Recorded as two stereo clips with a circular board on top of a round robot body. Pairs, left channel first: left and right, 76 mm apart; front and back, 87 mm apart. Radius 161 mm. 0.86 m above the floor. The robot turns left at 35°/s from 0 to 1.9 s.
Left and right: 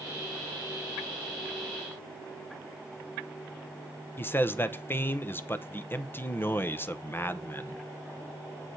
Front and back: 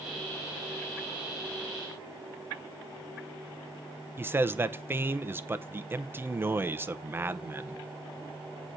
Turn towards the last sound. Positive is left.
turn(degrees=130)